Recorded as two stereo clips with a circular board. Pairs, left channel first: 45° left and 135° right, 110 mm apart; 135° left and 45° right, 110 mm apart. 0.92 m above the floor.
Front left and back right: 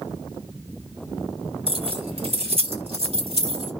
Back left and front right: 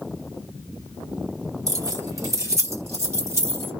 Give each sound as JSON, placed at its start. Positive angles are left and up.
{"t": 1.7, "sound": "keys jangling", "azimuth_deg": -105, "distance_m": 1.1}